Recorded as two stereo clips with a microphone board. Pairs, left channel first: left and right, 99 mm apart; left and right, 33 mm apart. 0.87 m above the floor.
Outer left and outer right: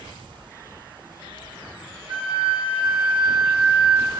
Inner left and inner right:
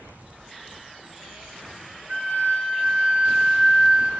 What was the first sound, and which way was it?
A flute, 70° right (ahead or behind).